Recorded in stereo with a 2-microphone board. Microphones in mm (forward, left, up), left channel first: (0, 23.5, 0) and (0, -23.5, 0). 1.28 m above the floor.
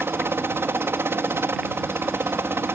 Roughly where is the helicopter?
Right.